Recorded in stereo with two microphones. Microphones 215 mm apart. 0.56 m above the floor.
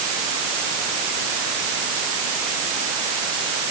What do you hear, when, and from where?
Only background noise.